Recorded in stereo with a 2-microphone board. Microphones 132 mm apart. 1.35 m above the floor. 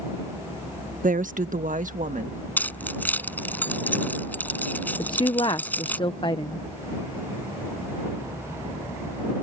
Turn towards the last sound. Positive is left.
turn(degrees=35)  # may be behind; listen again after turning